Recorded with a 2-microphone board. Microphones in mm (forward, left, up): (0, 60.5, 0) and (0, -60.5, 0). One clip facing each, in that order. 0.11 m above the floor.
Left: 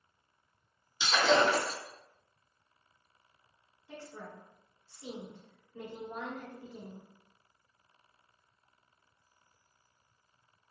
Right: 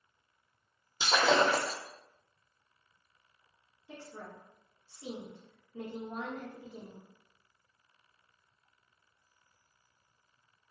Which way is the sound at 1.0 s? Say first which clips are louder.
Even; 45° right (ahead or behind).